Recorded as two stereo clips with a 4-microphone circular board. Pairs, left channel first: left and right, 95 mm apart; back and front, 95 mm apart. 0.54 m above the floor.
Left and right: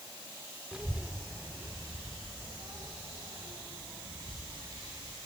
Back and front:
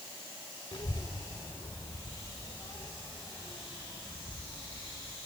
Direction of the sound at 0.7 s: 170° right.